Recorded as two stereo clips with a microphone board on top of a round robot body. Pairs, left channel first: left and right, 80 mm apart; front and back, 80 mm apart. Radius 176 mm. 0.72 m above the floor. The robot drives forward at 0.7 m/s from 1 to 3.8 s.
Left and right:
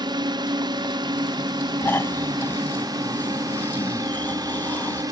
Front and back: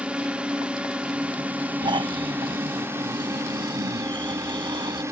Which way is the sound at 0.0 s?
105° right.